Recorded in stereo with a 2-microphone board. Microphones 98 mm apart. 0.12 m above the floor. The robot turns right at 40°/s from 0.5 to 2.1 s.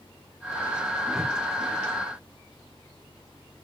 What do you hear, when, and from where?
1.1 s a whoosh: 5° right (ahead or behind), 1.1 m; by 1.4 s centre (ahead or behind), 1.1 m